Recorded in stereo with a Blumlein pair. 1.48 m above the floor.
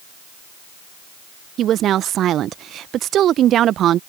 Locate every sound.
1.6 s a woman speaking: 30° right